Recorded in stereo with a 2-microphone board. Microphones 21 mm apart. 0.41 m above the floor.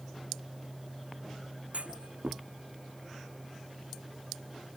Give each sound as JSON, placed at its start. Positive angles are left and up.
{"t": 1.7, "sound": "a clunk", "side_deg": -90}